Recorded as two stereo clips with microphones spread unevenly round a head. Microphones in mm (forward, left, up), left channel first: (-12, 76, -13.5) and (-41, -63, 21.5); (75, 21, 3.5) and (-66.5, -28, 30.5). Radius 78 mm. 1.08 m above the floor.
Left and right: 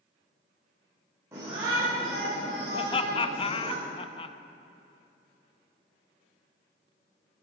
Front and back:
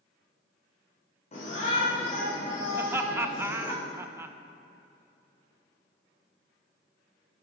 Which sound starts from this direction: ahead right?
A shout, at 1.3 s.